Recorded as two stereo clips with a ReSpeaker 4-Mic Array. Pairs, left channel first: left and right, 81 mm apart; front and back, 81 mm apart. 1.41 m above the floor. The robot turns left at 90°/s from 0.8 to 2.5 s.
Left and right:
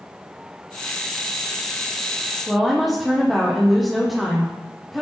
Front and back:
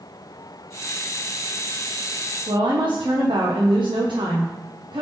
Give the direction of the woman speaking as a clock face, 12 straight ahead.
6 o'clock.